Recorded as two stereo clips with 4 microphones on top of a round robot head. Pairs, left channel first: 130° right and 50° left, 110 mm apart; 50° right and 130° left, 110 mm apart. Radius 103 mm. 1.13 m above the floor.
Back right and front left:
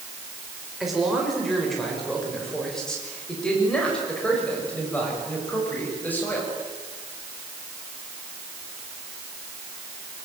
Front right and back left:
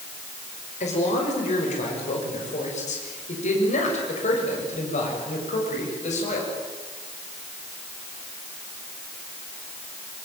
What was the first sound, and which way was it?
A man speaking, 35° right.